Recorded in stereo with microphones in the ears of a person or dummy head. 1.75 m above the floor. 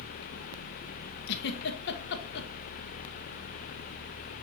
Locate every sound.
1.3 s a giggle: 60° left (ahead or behind), 1.2 m